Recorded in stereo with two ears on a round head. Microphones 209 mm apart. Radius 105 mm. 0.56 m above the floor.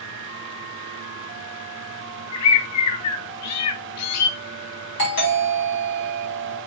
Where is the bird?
70° left (ahead or behind), 0.7 m.